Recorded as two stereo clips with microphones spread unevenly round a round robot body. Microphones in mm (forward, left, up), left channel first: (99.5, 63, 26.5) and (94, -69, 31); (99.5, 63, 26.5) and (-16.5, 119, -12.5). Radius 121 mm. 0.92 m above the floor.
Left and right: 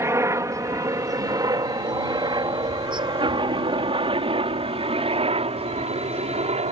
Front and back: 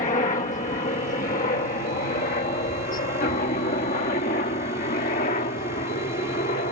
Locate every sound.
0.0 s a helicopter: 35° right; by 6.7 s 65° right